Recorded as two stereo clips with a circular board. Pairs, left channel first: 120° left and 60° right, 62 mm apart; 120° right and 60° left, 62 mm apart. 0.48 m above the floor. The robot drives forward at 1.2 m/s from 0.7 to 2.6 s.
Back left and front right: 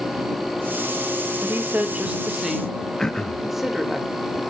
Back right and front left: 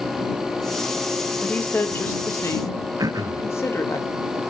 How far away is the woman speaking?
About 1.5 m.